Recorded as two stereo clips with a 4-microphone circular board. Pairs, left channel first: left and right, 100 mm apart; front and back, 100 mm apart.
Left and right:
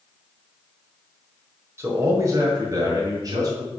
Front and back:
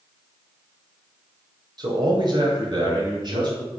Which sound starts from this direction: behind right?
A man speaking, at 1.8 s.